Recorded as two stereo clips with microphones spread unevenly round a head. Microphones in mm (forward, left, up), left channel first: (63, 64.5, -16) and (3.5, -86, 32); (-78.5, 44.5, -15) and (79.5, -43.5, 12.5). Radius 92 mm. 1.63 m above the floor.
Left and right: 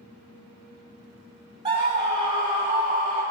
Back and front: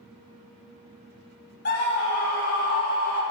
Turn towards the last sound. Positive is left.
turn(degrees=-175)